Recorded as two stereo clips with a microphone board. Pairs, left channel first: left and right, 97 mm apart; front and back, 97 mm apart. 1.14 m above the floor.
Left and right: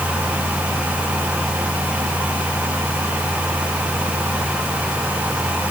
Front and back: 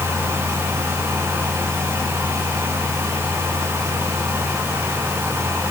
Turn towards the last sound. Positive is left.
No sound to turn to.